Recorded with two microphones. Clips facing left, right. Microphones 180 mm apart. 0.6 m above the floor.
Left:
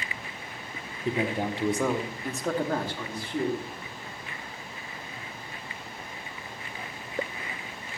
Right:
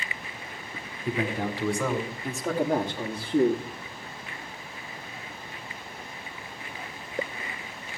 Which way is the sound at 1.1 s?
30° left (ahead or behind).